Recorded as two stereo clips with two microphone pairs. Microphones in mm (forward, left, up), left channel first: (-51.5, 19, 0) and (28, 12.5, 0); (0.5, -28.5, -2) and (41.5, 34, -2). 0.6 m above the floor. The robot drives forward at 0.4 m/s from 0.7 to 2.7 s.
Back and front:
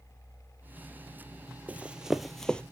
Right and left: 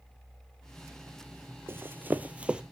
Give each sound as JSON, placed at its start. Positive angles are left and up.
{"t": 1.7, "sound": "running footsteps", "azimuth_deg": 50, "distance_m": 0.7}